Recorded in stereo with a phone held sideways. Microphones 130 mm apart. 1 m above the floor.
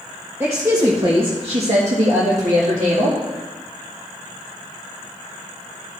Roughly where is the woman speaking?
Centre.